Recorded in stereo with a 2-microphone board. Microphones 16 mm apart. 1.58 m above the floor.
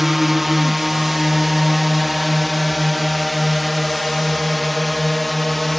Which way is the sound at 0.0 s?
10° right (ahead or behind).